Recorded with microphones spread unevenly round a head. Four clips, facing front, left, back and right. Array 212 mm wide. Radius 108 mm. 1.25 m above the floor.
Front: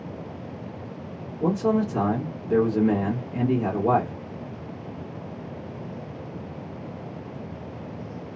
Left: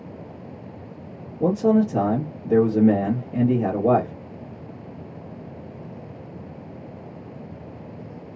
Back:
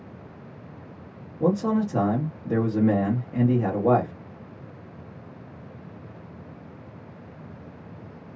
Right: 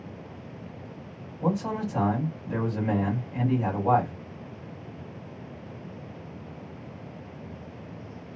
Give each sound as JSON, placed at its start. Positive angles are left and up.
{"t": 1.4, "sound": "a man speaking", "azimuth_deg": 105, "distance_m": 1.5}